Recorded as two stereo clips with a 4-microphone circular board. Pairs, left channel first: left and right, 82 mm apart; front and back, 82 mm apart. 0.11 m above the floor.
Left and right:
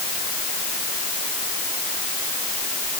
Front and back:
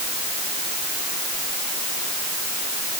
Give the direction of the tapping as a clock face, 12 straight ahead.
No tapping in this recording.